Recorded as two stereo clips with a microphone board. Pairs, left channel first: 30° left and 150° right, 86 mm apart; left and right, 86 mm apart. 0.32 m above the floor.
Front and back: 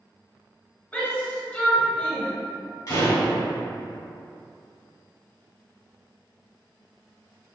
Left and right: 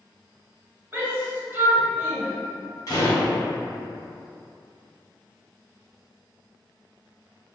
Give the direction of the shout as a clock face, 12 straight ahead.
1 o'clock.